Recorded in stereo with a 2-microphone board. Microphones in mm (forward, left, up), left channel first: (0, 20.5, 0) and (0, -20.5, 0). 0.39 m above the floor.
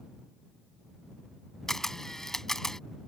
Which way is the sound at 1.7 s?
10° left (ahead or behind).